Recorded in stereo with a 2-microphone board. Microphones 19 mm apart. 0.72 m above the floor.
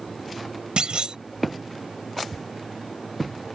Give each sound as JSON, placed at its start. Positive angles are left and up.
{"t": 0.8, "sound": "a clunk", "side_deg": -55}